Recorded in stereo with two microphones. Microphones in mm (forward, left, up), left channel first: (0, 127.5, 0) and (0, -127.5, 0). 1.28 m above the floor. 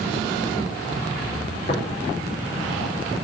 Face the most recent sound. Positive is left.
turn(degrees=35)  # may be behind; listen again after turning